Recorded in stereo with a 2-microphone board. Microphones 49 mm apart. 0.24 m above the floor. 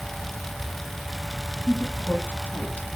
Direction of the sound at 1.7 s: 25° left (ahead or behind).